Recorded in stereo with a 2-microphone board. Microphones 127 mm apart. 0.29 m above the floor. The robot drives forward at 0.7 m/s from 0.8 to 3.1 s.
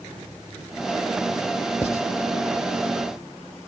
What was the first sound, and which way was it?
Writing, 20° left (ahead or behind).